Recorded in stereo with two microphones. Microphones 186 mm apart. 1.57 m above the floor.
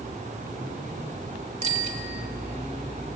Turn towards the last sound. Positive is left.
turn(degrees=-40)  # may be behind; listen again after turning